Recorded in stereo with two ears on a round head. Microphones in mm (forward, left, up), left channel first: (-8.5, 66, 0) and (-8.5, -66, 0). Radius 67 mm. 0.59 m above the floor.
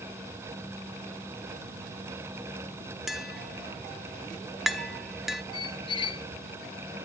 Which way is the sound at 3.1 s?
Centre (ahead or behind).